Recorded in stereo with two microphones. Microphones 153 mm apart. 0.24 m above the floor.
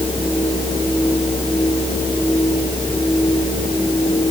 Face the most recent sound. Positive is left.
No sound to turn to.